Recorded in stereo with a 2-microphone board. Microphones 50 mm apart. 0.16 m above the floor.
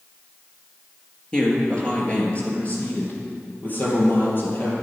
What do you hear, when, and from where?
1.3 s a man speaking: 15° left (ahead or behind), 2.5 m; by 4.7 s 45° left (ahead or behind), 3.5 m